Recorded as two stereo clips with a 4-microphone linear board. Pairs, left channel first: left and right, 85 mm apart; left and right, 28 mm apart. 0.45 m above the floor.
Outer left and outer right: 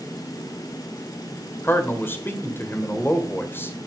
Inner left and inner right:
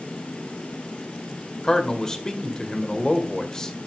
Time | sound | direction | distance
1.6 | a man speaking | 25° left (ahead or behind) | 1.9 m